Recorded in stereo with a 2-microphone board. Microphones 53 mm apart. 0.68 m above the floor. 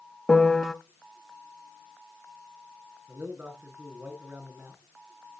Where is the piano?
10° left (ahead or behind), 0.9 m.